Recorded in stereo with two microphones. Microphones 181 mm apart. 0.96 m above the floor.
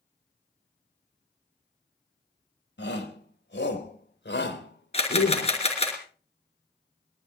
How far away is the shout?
About 4 m.